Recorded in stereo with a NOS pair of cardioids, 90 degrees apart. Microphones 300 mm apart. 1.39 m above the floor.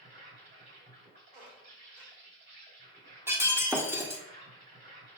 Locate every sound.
0.0 s an insect: 35° right, 3.5 m
1.3 s a squeak: 55° right, 2.5 m
3.3 s breaking glass: 10° right, 1.5 m